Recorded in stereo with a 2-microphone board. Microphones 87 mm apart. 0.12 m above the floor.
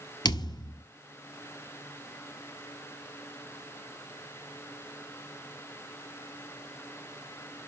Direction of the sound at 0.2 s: 55° left (ahead or behind).